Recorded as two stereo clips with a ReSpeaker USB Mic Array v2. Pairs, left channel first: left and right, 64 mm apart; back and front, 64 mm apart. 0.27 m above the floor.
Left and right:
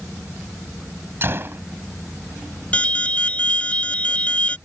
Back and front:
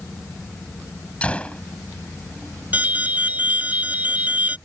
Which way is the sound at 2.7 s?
40° left.